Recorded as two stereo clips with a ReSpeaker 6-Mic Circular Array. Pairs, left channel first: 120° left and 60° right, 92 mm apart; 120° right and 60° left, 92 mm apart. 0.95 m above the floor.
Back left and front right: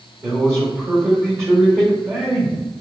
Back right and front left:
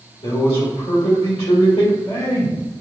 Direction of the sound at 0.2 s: 120° right.